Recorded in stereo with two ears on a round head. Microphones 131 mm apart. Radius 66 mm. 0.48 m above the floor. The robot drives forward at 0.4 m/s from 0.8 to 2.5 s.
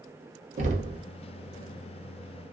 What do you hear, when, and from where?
0.6 s knocking: 50° right (ahead or behind), 0.6 m